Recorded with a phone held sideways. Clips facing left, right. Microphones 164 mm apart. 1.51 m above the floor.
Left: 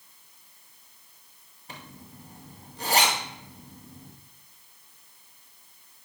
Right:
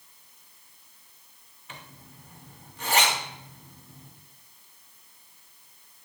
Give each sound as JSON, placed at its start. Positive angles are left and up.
{"t": 1.7, "sound": "a zipper", "side_deg": 35, "distance_m": 2.0}